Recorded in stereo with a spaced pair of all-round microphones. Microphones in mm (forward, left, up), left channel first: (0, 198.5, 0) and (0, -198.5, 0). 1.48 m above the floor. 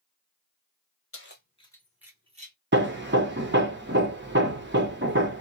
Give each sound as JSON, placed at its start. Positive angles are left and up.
{"t": 1.1, "sound": "keys jangling", "side_deg": 35, "distance_m": 0.9}
{"t": 2.7, "sound": "hammering", "side_deg": -30, "distance_m": 0.8}